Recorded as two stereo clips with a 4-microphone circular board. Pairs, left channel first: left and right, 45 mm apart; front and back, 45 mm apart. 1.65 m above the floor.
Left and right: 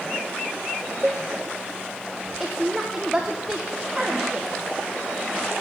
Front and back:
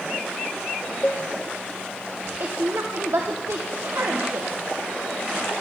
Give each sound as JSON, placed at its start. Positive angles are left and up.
{"t": 1.0, "sound": "a cowbell", "azimuth_deg": -35, "distance_m": 1.1}
{"t": 2.4, "sound": "a woman speaking", "azimuth_deg": -170, "distance_m": 1.4}